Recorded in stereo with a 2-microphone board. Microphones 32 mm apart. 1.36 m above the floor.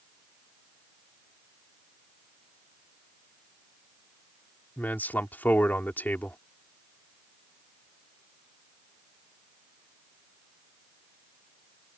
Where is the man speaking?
90° left.